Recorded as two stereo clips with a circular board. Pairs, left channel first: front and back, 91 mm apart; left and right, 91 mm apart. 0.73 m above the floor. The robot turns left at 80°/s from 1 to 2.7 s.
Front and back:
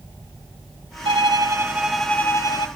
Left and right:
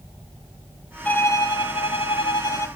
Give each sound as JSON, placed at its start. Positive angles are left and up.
{"t": 1.1, "sound": "a violin", "azimuth_deg": 165, "distance_m": 1.0}